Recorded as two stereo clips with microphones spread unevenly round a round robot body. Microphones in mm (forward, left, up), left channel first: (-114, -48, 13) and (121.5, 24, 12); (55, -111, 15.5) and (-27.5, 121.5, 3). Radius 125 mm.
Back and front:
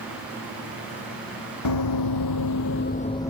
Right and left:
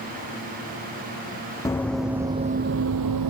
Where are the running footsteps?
150° right, 1.0 m; by 3.3 s 115° left, 0.7 m.